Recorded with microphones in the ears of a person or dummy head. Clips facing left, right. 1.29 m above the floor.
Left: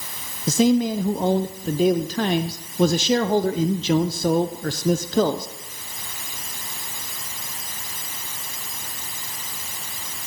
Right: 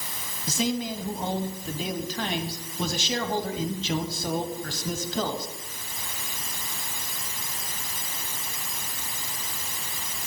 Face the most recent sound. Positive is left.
turn(degrees=40)  # may be behind; listen again after turning